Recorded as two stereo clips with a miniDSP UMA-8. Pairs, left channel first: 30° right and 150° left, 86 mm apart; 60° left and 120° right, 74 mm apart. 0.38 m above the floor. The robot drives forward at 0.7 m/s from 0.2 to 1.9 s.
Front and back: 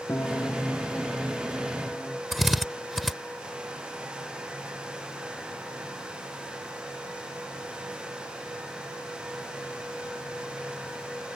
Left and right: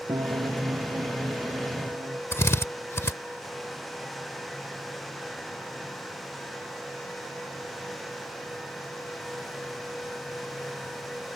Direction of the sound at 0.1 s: 90° right.